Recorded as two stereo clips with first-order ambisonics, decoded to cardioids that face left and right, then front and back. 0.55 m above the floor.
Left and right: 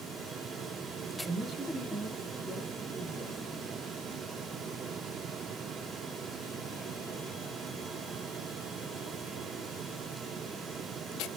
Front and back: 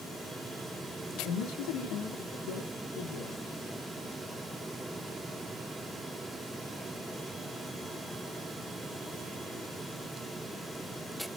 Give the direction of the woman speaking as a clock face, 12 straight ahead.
1 o'clock.